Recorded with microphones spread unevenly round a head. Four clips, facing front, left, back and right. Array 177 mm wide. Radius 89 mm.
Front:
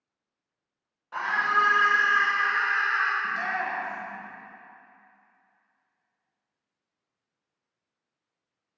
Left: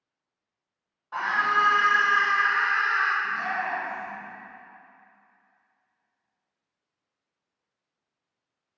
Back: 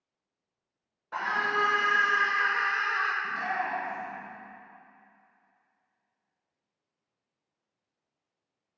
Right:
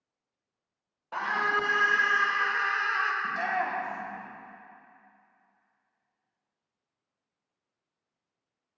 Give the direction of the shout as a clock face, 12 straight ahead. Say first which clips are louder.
Even, front 2 dB; 2 o'clock.